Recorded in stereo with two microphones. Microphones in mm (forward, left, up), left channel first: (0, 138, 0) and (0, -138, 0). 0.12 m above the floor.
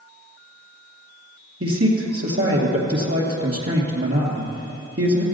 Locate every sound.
1.6 s a man speaking: 55° right (ahead or behind), 2.5 m